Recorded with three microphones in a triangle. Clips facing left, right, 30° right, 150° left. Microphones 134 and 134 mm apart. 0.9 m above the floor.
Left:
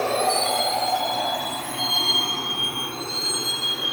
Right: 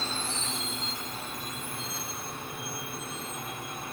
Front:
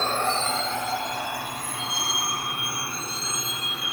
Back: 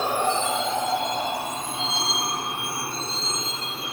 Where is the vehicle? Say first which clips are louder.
Left 15 dB, back 2 dB; 75° left; by 3.9 s 90° left.